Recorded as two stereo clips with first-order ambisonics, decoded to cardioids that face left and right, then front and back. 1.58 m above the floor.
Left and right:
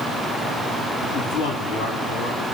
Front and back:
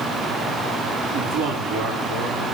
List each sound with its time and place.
1.1 s a man speaking: 170° left, 5 m